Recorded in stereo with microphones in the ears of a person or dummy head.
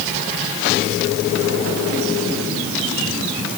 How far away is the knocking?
No knocking in this recording.